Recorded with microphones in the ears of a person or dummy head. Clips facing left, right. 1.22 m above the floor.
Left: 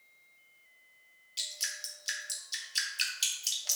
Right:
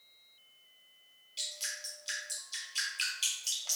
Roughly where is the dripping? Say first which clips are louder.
Right 2 dB; centre.